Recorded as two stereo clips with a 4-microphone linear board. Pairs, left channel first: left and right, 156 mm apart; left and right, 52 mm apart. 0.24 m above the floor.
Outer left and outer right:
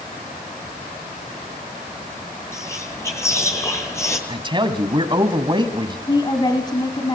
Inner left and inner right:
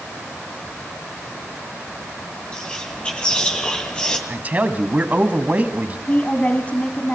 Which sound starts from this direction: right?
A man speaking, at 4.3 s.